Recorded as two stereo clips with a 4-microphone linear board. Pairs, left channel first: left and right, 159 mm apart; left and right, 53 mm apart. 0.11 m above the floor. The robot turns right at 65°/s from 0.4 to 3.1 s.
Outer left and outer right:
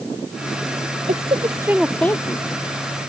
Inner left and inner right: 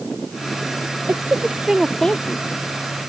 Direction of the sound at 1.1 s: 55° right.